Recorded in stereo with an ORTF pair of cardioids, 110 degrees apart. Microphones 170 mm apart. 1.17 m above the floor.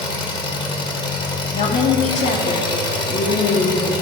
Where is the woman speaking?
45° left, 2.5 m.